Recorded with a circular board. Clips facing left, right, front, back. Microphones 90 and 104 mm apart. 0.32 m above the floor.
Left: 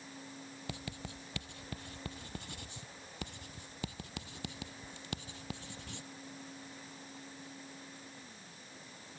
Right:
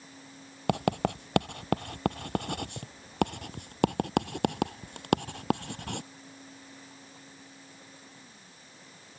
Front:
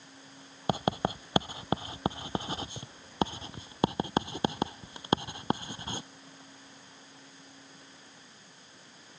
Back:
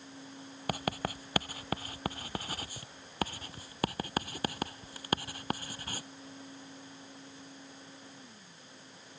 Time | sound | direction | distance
0.7 | writing | 65° right | ?